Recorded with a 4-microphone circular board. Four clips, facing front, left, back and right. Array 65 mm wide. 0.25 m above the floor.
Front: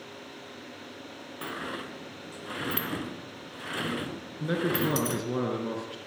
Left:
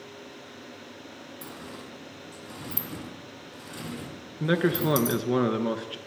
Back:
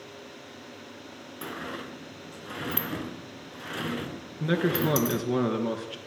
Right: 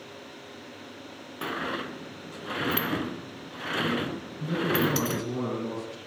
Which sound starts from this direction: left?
A man speaking, at 4.4 s.